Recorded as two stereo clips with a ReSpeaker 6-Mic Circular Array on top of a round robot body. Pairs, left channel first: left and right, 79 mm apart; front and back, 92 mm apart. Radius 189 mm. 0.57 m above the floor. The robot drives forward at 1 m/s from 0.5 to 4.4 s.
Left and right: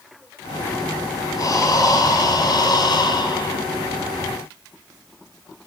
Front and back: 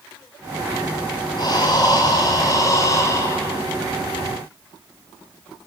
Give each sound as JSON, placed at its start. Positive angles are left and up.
{"t": 1.4, "sound": "breathing", "azimuth_deg": 45, "distance_m": 7.0}